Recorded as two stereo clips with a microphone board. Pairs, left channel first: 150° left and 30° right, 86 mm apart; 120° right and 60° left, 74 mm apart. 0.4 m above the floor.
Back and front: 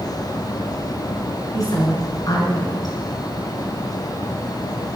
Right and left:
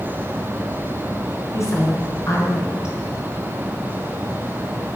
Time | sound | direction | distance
1.5 | a woman speaking | 170° right | 5.5 m